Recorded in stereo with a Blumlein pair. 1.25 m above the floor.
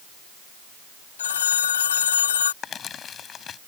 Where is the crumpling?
25° left.